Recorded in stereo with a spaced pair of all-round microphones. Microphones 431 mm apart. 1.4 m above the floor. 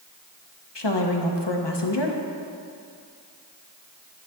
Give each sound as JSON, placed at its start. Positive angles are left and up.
{"t": 0.8, "sound": "a woman speaking", "side_deg": 70, "distance_m": 1.1}